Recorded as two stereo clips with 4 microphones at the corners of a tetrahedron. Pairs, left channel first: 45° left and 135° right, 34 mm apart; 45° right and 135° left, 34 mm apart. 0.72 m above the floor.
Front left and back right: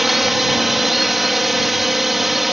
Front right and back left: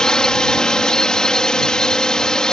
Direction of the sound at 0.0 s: 55° right.